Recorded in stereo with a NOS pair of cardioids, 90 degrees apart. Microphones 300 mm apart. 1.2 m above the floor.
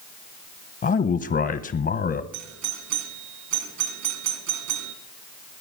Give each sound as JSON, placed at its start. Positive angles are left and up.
{"t": 0.8, "sound": "a man speaking", "azimuth_deg": 35, "distance_m": 1.0}
{"t": 2.3, "sound": "a doorbell", "azimuth_deg": -70, "distance_m": 3.0}